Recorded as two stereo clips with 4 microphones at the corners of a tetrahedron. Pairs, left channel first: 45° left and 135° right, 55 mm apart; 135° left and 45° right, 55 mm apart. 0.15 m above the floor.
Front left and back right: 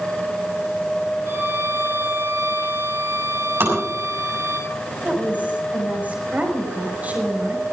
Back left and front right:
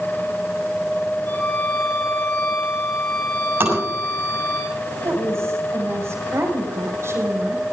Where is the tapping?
90° right, 7 m.